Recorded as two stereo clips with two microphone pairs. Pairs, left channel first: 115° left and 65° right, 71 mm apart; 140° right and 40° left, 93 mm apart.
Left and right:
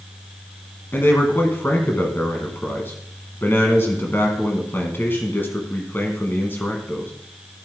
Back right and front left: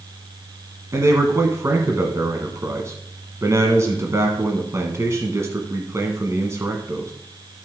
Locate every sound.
0.9 s a man speaking: 75° left, 1.2 m